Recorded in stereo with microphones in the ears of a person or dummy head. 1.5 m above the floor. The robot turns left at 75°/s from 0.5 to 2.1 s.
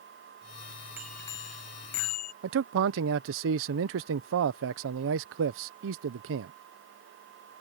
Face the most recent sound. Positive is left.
turn(degrees=-70)  # may be behind; listen again after turning